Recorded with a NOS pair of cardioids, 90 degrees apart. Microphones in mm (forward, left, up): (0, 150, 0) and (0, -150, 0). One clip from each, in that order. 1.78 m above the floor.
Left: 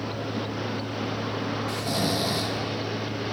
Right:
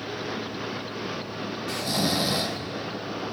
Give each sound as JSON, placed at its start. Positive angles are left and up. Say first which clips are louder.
{"t": 0.0, "sound": "a fan", "louder": "left 1 dB", "azimuth_deg": 35, "distance_m": 1.6}
{"t": 1.7, "sound": "snoring", "louder": "right 3 dB", "azimuth_deg": -15, "distance_m": 1.0}